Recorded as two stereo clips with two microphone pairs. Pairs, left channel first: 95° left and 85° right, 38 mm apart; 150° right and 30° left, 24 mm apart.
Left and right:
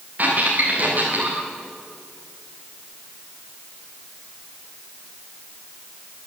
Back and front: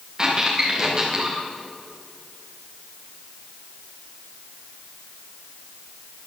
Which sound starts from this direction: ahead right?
A squeak, at 0.2 s.